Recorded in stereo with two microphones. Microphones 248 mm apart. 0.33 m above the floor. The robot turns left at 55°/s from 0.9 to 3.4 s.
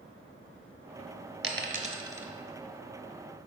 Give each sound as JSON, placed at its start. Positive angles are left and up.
{"t": 1.4, "sound": "a dropped coin", "side_deg": -50, "distance_m": 0.8}